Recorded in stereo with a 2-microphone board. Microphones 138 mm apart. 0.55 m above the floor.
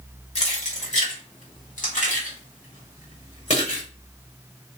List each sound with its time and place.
0.3 s keys jangling: 50° left (ahead or behind), 1.5 m; by 3.8 s 55° left (ahead or behind), 1.9 m